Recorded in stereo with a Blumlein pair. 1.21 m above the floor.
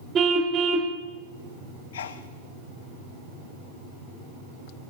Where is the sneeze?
60° left, 0.9 m.